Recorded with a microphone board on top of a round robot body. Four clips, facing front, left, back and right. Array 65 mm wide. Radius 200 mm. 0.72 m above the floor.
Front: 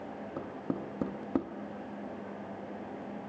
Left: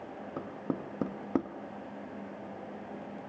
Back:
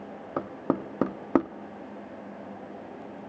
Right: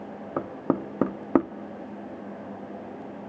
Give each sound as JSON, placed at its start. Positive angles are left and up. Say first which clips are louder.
{"t": 0.4, "sound": "knocking", "louder": "right 10 dB, back 9 dB", "azimuth_deg": -125, "distance_m": 1.0}